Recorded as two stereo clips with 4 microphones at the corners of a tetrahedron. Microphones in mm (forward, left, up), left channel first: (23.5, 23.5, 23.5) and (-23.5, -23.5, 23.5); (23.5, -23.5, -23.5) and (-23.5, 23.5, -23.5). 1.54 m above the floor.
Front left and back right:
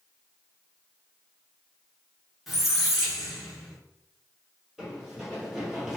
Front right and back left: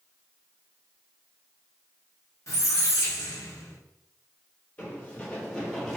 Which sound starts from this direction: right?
Running footsteps, at 4.8 s.